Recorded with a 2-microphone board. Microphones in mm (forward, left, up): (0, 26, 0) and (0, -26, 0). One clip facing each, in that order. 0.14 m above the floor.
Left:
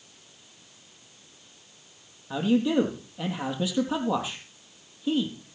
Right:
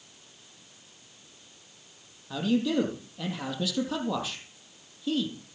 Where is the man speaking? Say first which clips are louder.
Left 3 dB; 20° left (ahead or behind), 4 m.